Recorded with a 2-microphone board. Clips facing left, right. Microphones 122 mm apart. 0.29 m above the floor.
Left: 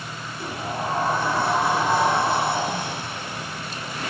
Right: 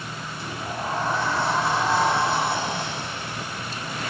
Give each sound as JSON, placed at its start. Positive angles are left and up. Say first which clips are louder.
{"t": 0.4, "sound": "a sliding door", "louder": "left 3 dB", "side_deg": 50, "distance_m": 9.5}